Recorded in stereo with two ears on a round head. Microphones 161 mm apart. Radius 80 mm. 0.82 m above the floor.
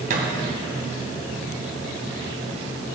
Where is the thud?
50° right (ahead or behind), 2.5 m.